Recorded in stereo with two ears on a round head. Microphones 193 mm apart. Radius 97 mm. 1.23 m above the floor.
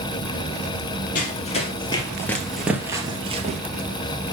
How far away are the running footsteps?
About 1.7 m.